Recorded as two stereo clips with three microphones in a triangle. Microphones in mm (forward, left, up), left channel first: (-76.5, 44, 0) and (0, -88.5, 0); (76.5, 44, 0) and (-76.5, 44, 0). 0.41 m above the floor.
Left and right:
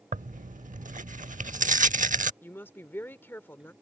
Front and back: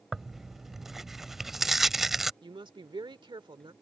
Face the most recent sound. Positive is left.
turn(degrees=-175)